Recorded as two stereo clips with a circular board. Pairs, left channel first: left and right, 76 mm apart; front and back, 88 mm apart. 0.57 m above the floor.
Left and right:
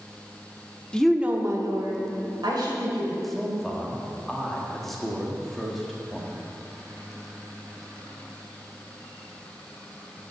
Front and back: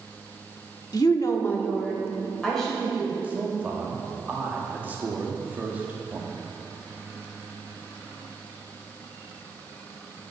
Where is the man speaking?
170° left, 1.2 m.